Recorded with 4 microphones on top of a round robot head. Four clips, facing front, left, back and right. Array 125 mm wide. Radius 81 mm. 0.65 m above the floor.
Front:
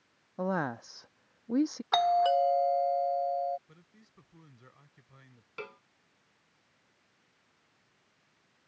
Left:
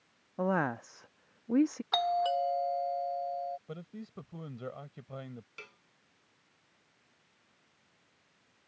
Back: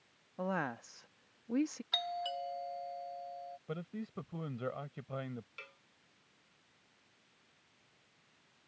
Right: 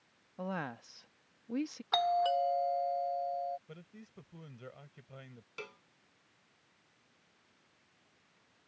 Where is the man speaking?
155° left.